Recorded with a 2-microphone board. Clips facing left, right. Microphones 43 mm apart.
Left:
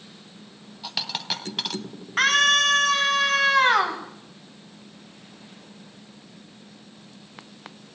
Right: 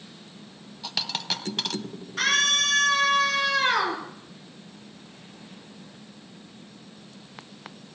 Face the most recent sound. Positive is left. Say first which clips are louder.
# left 4 dB
turn(degrees=55)  # may be behind; listen again after turning